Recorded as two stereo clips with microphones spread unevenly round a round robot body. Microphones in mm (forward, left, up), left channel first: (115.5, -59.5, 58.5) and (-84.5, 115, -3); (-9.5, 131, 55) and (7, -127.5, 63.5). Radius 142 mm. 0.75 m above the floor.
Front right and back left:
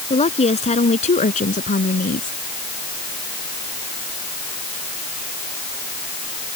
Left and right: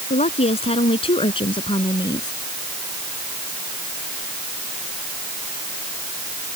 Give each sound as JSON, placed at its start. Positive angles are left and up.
{"t": 0.1, "sound": "a woman speaking", "azimuth_deg": 25}